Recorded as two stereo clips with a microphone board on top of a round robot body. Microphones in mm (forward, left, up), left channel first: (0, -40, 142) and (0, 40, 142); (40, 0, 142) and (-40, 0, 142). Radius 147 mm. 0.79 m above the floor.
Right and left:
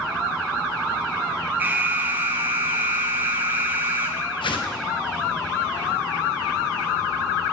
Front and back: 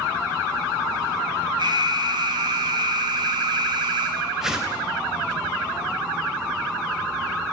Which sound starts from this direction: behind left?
An alarm, at 1.6 s.